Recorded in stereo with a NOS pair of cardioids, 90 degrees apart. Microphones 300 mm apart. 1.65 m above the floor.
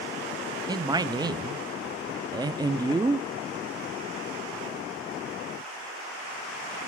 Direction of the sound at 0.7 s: 15° right.